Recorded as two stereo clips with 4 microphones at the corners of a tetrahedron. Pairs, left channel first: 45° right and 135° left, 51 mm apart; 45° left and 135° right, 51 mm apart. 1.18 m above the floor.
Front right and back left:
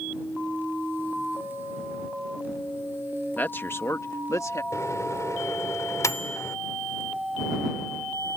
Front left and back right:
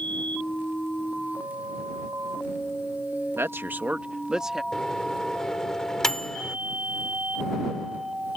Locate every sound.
3.4 s a man speaking: 100° right; by 4.6 s 50° right
4.7 s a microwave: 35° right